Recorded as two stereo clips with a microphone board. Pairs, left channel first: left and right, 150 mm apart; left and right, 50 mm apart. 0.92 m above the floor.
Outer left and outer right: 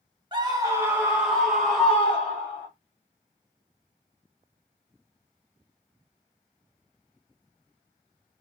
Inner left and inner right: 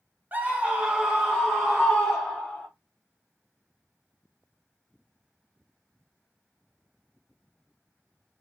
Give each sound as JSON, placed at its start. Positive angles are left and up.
{"t": 0.3, "sound": "a scream", "side_deg": -30, "distance_m": 0.9}